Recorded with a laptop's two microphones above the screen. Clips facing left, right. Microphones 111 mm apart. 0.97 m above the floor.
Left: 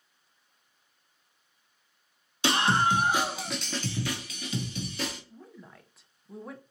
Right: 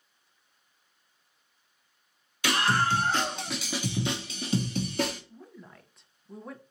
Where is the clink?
No clink in this recording.